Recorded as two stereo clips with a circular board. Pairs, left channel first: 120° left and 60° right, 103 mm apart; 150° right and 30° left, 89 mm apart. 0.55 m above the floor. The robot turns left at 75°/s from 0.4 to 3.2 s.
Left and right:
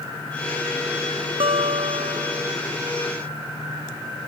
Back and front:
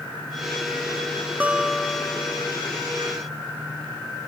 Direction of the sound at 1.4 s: 40° right.